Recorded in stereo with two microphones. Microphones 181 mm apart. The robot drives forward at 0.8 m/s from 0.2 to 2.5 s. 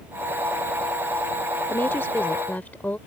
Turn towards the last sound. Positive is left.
turn(degrees=10)  # may be behind; listen again after turning